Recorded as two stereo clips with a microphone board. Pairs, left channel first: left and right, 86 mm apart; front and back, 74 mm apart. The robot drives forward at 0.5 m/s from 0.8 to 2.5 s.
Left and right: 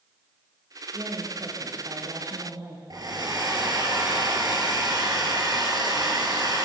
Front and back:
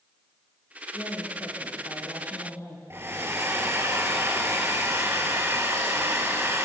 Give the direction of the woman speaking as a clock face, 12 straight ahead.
1 o'clock.